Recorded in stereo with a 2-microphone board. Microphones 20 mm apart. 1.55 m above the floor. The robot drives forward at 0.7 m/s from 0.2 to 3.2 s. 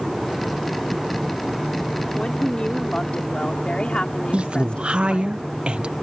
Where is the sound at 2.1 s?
55° left (ahead or behind); by 5.3 s 65° left (ahead or behind).